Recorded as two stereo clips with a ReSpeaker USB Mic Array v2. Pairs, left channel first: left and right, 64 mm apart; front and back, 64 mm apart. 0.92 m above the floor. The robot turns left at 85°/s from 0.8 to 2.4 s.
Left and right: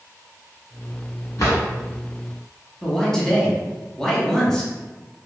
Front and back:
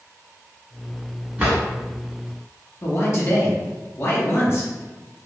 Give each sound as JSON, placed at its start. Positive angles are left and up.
{"t": 1.4, "sound": "a drawer", "azimuth_deg": 115, "distance_m": 1.4}
{"t": 2.8, "sound": "a man speaking", "azimuth_deg": 10, "distance_m": 0.9}